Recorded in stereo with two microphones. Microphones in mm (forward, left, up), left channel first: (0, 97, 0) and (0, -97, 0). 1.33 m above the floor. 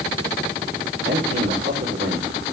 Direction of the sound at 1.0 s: 70° right (ahead or behind).